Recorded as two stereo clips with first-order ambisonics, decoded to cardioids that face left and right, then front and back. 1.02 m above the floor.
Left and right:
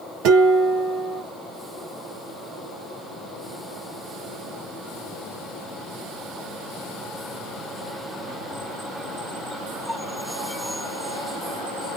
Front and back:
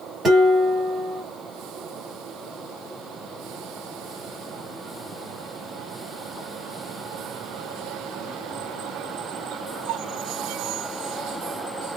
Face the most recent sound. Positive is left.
turn(degrees=-110)